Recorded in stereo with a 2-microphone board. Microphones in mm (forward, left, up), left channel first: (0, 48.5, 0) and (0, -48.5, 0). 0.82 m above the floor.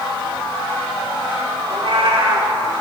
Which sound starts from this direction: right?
A cat meowing, at 1.7 s.